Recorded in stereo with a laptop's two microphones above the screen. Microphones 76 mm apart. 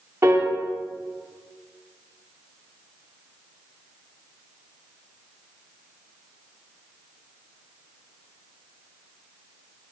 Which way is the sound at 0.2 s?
35° right (ahead or behind).